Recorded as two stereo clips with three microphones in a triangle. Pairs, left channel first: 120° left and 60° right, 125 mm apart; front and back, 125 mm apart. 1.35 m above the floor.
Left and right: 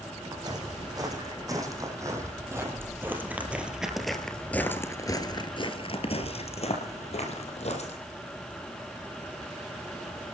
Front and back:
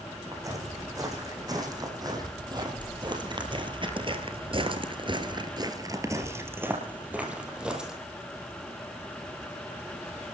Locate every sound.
0.3 s footsteps: 115° right, 5 m; by 7.9 s 95° left, 3.5 m